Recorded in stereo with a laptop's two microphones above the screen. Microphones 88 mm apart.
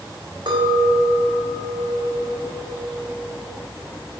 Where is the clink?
65° right (ahead or behind), 3 m.